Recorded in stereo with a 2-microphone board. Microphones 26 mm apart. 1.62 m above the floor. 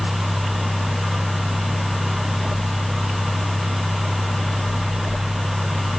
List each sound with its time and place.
Only background noise.